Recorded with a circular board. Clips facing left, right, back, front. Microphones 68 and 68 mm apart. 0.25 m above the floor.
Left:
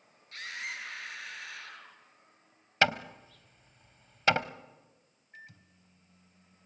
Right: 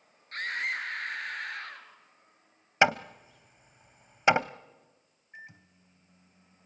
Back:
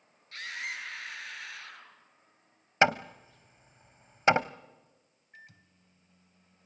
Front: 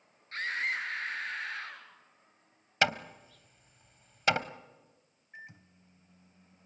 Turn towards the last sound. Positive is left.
turn(degrees=-45)